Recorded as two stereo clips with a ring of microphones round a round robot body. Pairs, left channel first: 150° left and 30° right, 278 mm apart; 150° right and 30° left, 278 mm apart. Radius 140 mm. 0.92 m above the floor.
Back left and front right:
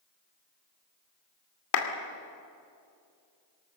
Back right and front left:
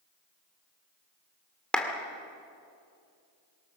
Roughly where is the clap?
Behind left.